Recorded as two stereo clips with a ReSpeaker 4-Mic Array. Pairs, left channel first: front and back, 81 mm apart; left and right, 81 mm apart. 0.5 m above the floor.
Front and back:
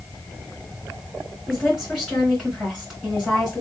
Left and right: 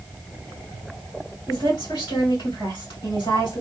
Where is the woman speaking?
95° left, 2.5 m.